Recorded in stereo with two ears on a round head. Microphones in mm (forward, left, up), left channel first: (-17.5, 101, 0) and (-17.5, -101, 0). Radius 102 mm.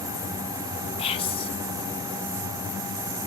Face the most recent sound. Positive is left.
turn(degrees=25)  # may be behind; listen again after turning